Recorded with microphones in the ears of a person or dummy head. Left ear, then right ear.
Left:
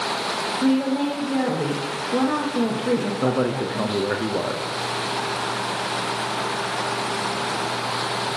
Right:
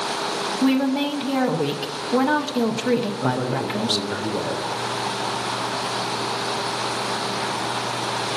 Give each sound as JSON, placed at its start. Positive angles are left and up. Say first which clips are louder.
{"t": 0.6, "sound": "a woman speaking", "louder": "right 2 dB", "side_deg": -40, "distance_m": 0.6}
{"t": 3.2, "sound": "a man speaking", "louder": "left 1 dB", "side_deg": 75, "distance_m": 0.6}